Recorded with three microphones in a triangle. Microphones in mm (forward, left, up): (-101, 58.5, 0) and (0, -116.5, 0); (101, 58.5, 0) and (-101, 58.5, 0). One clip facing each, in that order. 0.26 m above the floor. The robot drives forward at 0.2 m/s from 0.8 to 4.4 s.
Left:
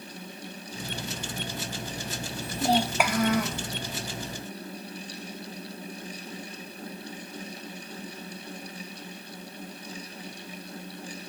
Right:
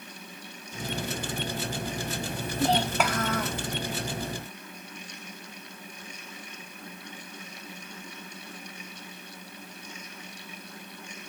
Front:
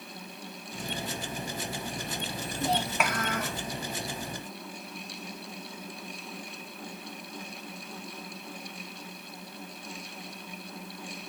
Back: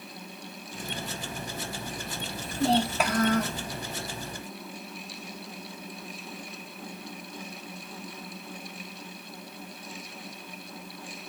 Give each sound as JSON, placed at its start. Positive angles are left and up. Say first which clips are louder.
{"t": 2.4, "sound": "a child speaking", "louder": "left 1 dB, back 6 dB", "azimuth_deg": -165, "distance_m": 0.9}